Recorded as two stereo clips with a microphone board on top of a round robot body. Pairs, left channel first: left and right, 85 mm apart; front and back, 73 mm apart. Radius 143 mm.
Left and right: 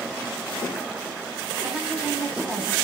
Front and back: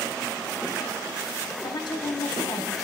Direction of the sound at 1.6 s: 10° right.